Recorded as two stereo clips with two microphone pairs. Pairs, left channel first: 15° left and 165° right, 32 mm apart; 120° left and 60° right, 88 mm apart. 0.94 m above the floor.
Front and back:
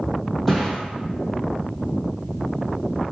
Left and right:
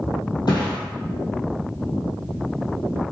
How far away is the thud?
About 1.7 m.